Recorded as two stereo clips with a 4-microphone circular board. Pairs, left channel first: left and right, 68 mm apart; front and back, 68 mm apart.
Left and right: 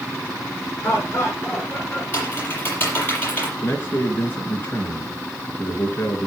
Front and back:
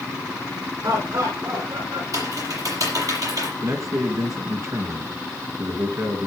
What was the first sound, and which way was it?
Laughter, 145° left.